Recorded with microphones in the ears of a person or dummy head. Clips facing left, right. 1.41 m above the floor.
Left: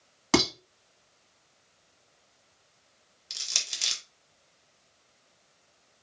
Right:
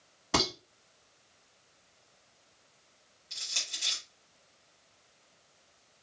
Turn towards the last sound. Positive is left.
turn(degrees=80)